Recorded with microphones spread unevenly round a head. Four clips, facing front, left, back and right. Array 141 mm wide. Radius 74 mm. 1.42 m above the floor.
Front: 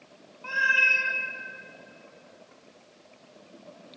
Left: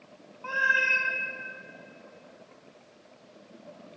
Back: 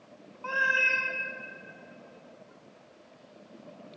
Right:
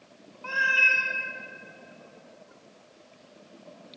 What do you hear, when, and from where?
0.4 s a cat meowing: 170° left, 1.2 m